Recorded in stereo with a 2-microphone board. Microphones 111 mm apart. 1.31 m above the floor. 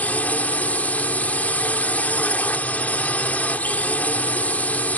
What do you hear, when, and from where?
0.0 s a drone: 15° left (ahead or behind)